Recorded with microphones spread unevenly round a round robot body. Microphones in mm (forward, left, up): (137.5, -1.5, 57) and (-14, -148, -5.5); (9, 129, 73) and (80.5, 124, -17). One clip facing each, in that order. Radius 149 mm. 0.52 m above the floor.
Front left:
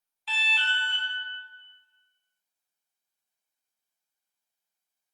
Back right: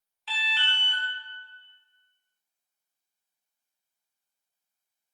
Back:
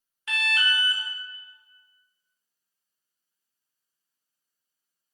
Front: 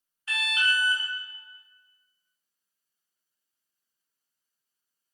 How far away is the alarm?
About 0.6 m.